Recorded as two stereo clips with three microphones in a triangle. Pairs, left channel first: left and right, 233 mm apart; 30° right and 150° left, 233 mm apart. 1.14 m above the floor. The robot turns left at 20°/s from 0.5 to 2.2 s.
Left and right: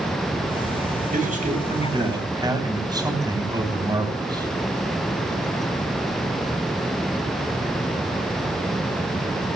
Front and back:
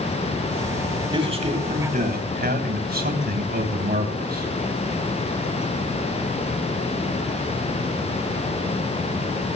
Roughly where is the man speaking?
Behind right.